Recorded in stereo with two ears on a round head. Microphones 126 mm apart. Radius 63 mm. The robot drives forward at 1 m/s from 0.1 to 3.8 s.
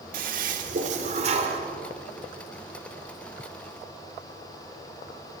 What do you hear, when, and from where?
0.1 s a toilet flushing: 70° right (ahead or behind), 2 m; by 1.6 s 45° right (ahead or behind), 3 m